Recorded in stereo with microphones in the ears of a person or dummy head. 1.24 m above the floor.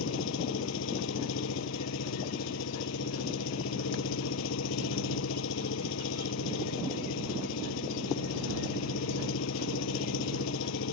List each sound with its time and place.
0.0 s an engine running: 75° left (ahead or behind)